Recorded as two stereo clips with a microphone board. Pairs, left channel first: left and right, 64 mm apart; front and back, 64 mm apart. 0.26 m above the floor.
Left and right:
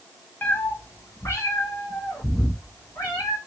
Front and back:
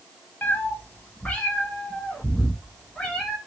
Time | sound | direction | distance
0.4 | a cat meowing | 45° left | 0.6 m